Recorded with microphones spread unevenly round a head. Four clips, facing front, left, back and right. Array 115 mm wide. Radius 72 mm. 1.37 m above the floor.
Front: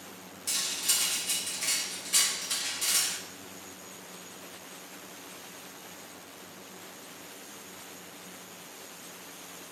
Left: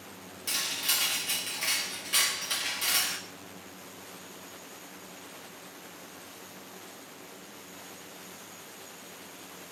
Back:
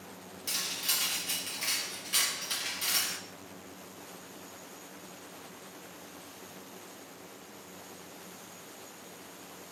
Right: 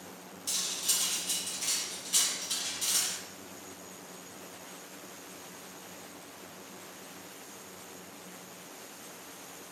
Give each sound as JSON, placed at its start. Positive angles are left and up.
{"t": 0.5, "sound": "cutlery clinking", "azimuth_deg": 85, "distance_m": 1.3}